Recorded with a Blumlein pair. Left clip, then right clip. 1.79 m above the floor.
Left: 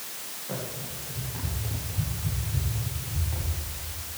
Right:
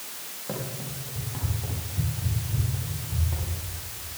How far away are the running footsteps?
About 6.5 m.